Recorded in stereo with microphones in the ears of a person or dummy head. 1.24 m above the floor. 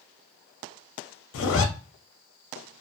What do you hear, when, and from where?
1.3 s a zipper: 65° left (ahead or behind), 0.5 m